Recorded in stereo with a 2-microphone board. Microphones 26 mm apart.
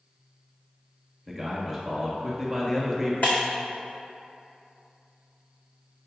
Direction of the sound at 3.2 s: 55° left (ahead or behind).